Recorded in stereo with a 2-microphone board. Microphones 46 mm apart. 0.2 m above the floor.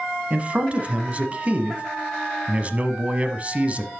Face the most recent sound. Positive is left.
turn(degrees=-30)  # may be behind; listen again after turning